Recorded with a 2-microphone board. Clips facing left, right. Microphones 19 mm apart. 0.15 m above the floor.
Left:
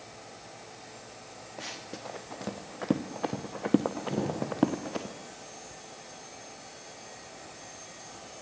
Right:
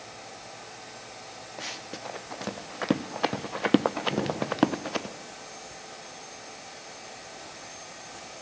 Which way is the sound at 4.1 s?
10° right (ahead or behind).